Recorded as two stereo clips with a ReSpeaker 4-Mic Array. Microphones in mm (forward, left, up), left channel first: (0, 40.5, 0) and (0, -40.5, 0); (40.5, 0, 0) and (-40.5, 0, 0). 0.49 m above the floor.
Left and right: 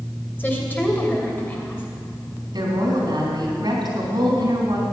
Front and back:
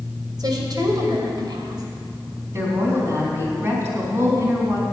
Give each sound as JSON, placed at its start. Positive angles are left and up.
{"t": 0.4, "sound": "a woman speaking", "azimuth_deg": 155, "distance_m": 2.5}
{"t": 2.5, "sound": "a woman speaking", "azimuth_deg": -125, "distance_m": 3.5}